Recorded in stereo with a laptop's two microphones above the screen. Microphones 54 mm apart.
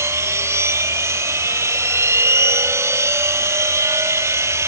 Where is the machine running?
55° right (ahead or behind).